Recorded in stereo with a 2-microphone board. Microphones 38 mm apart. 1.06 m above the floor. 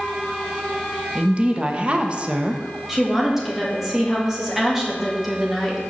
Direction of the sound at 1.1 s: 30° right (ahead or behind).